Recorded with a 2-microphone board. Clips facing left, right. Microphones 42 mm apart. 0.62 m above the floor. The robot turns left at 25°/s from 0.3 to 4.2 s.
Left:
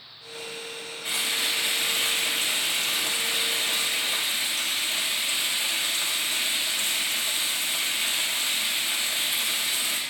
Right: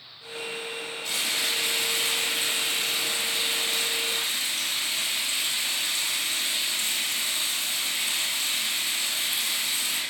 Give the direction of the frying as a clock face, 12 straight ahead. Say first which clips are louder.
Left 1 dB; 7 o'clock.